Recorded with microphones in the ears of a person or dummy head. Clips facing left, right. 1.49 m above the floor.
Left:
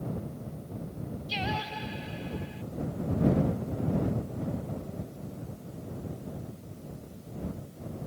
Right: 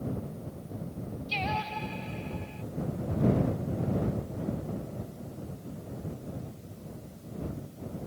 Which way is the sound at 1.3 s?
10° left (ahead or behind).